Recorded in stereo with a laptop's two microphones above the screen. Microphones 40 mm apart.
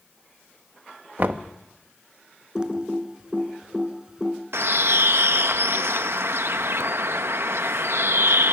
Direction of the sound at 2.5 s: 25° right (ahead or behind).